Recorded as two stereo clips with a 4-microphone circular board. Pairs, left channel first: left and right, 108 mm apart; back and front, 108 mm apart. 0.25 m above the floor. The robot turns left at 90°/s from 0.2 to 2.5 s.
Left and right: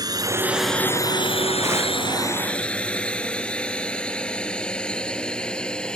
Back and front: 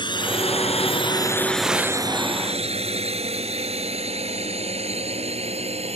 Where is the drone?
140° right; by 6.0 s 10° left.